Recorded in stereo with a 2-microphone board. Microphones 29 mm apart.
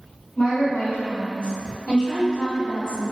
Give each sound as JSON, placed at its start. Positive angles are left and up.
{"t": 0.4, "sound": "a woman speaking", "side_deg": 55, "distance_m": 1.9}